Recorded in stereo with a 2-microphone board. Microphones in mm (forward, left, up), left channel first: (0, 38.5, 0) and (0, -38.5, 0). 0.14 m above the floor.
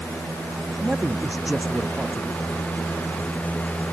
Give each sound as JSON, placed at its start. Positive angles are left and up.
{"t": 0.8, "sound": "a man speaking", "side_deg": -10}